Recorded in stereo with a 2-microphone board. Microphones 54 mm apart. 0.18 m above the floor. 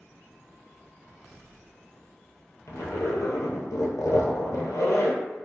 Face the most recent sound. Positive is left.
turn(degrees=85)